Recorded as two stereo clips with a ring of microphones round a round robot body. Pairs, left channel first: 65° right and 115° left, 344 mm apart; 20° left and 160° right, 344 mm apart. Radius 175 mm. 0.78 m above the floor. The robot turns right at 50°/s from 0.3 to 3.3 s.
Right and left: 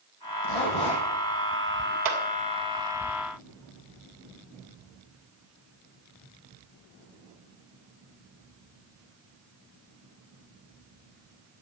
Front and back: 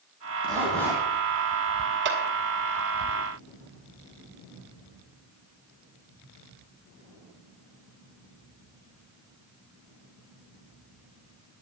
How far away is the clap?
About 2.5 m.